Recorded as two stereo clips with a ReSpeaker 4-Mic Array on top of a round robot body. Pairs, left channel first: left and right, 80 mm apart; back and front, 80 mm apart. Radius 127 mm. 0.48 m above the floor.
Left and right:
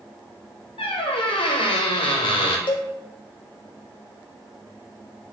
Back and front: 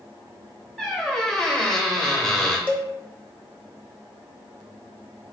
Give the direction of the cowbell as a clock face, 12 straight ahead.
9 o'clock.